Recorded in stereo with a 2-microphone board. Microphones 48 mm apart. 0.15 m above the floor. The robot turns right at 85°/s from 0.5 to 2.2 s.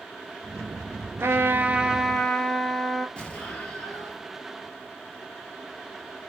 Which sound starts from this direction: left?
An explosion, at 3.2 s.